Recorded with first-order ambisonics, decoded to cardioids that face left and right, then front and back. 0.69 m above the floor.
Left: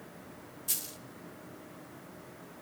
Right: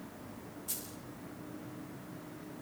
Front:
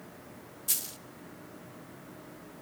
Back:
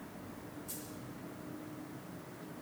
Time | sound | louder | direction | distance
0.7 | a dropped coin | left 7 dB, front 16 dB | 30° left | 0.7 m